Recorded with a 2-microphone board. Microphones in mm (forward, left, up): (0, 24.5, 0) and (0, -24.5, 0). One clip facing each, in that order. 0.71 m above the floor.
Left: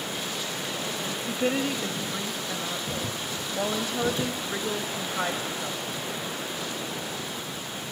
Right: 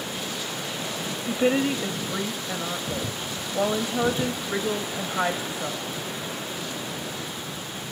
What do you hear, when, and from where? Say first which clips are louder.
1.3 s a woman speaking: right 5 dB; 15° right (ahead or behind), 0.8 m